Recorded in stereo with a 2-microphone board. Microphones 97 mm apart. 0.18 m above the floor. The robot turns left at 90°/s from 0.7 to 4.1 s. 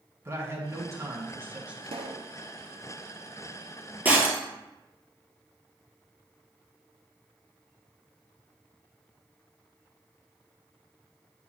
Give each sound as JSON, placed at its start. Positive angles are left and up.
{"t": 0.2, "sound": "a man speaking", "azimuth_deg": -65, "distance_m": 1.8}
{"t": 1.8, "sound": "a pop", "azimuth_deg": -65, "distance_m": 1.1}
{"t": 4.0, "sound": "breaking glass", "side_deg": -20, "distance_m": 1.4}